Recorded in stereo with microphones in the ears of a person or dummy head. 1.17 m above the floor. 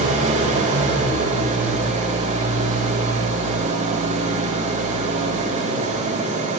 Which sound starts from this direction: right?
An engine running, at 0.0 s.